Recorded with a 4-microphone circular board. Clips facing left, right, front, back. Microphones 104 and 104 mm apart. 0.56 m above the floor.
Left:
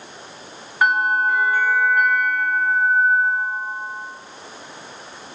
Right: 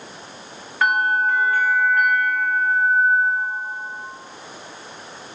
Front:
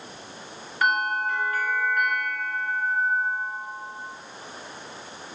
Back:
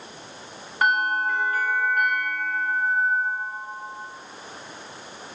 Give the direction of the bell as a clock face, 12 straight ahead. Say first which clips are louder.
Left 1 dB, back 2 dB; 7 o'clock.